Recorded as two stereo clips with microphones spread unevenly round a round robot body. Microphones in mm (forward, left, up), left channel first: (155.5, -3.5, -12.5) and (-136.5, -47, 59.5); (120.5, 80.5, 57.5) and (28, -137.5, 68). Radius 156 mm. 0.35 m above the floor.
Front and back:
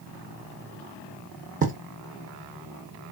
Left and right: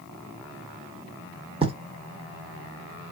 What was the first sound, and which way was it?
Writing, 115° right.